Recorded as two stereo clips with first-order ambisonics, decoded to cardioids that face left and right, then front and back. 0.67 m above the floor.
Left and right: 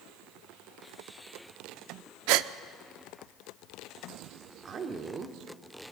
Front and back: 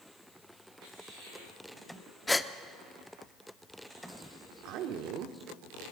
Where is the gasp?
80° right, 0.5 m.